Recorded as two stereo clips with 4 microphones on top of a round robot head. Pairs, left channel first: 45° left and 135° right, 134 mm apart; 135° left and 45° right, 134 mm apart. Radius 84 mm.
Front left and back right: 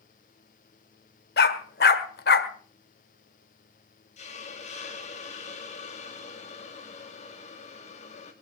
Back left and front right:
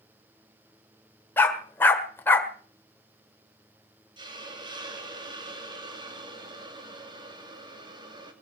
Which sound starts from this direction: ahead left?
A dog barking, at 1.4 s.